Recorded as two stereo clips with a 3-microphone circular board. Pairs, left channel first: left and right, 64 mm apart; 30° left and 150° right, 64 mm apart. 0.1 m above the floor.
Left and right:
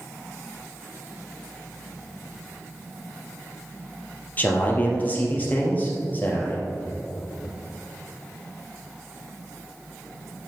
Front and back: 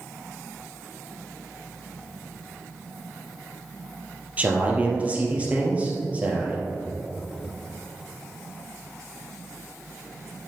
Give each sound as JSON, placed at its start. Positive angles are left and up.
{"t": 4.4, "sound": "a man speaking", "azimuth_deg": 145, "distance_m": 2.5}